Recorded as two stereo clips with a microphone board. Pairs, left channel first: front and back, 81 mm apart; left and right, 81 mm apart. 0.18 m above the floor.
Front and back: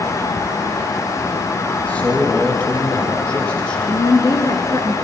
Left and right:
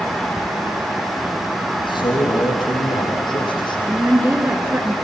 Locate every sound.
1.8 s a man speaking: 75° left, 6 m; by 3.8 s 80° left, 7.5 m
3.9 s a woman speaking: 30° right, 2.5 m